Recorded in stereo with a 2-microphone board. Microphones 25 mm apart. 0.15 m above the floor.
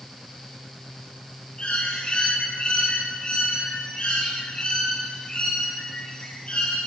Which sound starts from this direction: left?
A bird, at 1.6 s.